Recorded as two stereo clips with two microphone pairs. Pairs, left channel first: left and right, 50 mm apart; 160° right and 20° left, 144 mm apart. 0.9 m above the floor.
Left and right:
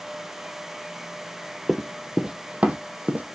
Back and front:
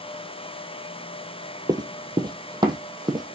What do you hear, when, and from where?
1.7 s running footsteps: 5° right, 1.0 m; by 3.2 s 35° right, 1.9 m